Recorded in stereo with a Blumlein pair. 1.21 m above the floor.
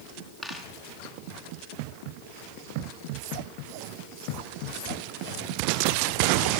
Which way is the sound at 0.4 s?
5° right.